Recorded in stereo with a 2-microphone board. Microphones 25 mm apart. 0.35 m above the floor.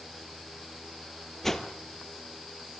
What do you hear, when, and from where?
1.4 s a whoosh: 15° left (ahead or behind), 2 m